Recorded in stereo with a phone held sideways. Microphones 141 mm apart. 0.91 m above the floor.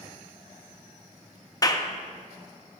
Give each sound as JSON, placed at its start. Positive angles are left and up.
{"t": 1.6, "sound": "a clap", "side_deg": 25, "distance_m": 0.7}